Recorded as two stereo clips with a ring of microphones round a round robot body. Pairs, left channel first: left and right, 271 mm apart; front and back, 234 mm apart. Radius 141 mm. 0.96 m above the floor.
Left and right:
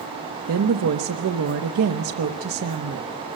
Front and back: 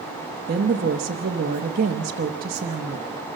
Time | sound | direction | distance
0.5 | a woman speaking | 125° right | 0.9 m